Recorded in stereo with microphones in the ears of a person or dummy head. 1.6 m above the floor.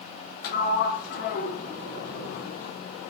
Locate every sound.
0.4 s a sliding door: 60° left (ahead or behind), 0.8 m